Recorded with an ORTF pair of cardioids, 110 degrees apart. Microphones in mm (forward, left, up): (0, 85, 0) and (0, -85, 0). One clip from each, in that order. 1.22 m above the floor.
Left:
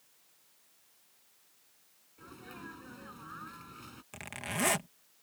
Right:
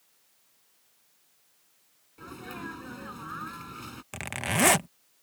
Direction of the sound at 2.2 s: 45° right.